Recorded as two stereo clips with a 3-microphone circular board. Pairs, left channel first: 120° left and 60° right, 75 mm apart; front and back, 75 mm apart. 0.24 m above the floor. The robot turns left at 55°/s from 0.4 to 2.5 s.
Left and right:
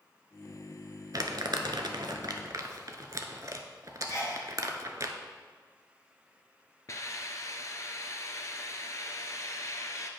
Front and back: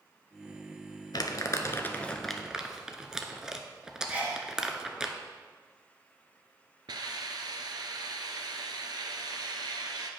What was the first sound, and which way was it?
Crumpling, 25° right.